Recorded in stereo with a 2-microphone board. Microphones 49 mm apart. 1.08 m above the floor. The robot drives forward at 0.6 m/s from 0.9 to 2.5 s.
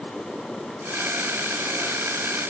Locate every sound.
Only background noise.